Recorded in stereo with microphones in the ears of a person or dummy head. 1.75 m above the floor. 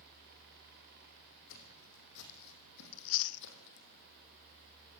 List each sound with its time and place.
1.5 s footsteps: 70° left (ahead or behind), 7 m; by 3.9 s 60° left (ahead or behind), 4.5 m
2.9 s chewing: 70° left (ahead or behind), 0.7 m